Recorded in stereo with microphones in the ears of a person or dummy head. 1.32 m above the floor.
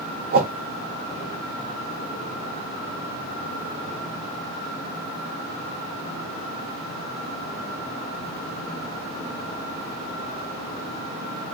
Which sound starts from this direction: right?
A whoosh, at 0.3 s.